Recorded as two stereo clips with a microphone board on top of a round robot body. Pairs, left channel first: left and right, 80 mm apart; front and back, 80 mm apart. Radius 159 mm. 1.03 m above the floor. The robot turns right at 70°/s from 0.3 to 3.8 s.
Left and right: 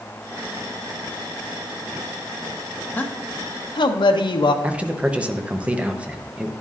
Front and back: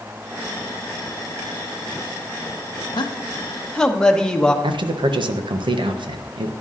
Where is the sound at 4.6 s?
165° right, 0.9 m.